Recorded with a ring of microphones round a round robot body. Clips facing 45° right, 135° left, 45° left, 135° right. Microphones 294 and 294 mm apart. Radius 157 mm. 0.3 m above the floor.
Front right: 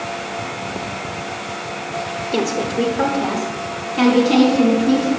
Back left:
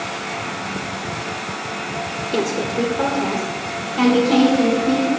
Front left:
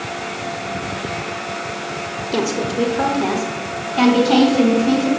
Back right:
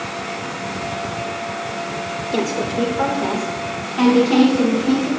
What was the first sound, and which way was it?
A woman speaking, 60° left.